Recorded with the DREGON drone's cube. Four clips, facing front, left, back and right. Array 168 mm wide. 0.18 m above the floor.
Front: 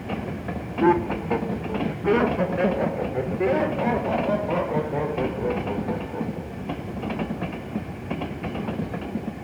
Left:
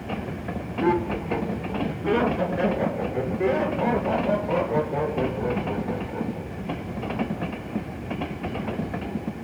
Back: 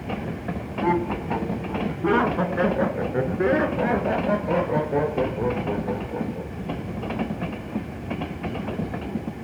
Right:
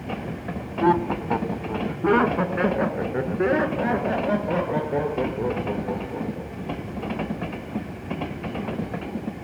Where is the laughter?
65° right, 1.5 m; by 7.0 s 145° right, 6 m.